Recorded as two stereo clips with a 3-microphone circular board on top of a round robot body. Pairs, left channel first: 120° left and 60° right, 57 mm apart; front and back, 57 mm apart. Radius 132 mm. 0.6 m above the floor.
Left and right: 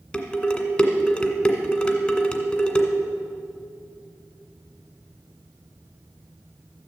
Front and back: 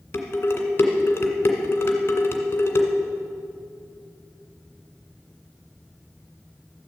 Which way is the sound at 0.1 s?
55° left.